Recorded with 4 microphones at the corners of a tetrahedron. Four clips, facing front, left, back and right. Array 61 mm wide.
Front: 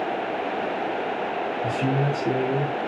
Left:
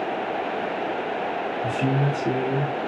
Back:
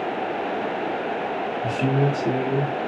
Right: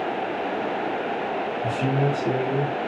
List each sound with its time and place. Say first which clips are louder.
1.6 s a man speaking: even, back 3 dB; 95° left, 1.3 m